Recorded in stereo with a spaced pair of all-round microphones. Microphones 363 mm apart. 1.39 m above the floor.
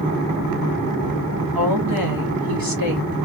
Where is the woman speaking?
70° right (ahead or behind), 1.3 m.